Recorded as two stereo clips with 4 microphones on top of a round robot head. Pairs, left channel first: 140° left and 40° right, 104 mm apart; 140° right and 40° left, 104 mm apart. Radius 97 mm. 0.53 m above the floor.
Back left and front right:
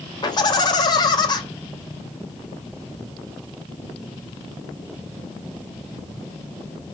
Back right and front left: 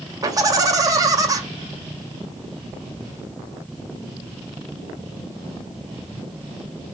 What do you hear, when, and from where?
0.2 s laughter: 95° left, 3 m